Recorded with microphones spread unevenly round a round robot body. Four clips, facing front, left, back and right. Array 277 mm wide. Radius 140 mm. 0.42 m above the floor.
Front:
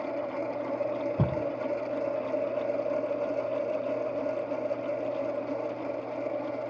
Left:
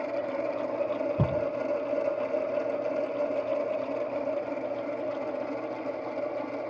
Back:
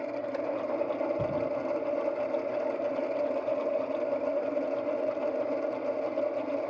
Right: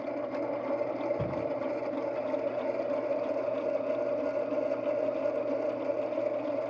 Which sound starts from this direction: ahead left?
A thud, at 1.2 s.